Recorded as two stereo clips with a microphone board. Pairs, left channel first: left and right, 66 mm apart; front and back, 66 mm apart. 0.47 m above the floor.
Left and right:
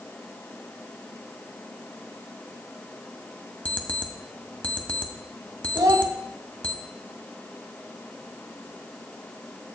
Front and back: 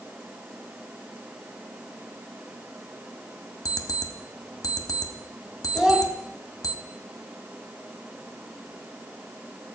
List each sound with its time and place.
3.6 s an alarm clock: 20° left, 1.1 m
5.7 s a child speaking: 100° right, 1.6 m